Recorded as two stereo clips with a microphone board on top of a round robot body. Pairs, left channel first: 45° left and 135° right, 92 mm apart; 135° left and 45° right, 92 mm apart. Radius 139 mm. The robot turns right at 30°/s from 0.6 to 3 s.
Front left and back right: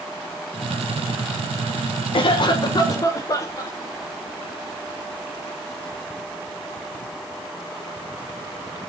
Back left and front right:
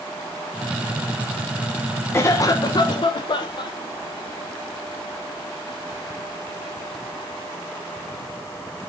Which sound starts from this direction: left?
A cough, at 2.1 s.